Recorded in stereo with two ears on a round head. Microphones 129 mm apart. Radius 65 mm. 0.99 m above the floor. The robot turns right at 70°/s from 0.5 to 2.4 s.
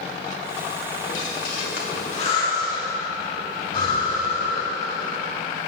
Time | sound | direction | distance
1.1 | breathing | 50° left (ahead or behind) | 1.4 m